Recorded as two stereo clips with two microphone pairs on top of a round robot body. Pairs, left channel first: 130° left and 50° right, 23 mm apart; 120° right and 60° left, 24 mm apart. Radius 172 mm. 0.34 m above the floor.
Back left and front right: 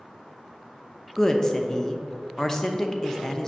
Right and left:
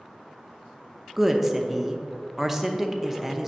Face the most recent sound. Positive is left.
turn(degrees=120)